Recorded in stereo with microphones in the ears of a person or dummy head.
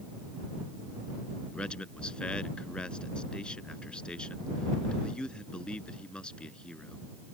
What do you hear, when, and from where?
1.5 s a man speaking: centre (ahead or behind)